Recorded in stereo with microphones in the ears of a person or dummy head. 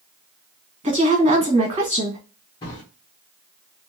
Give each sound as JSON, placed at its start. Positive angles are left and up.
{"t": 0.8, "sound": "a woman speaking", "side_deg": -30, "distance_m": 1.5}
{"t": 2.6, "sound": "a drawer", "side_deg": 20, "distance_m": 0.8}